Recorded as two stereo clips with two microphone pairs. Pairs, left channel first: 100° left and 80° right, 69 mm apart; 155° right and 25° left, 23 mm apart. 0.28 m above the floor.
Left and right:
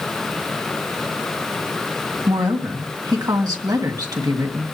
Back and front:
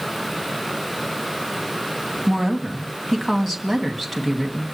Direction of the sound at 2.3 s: 75° right.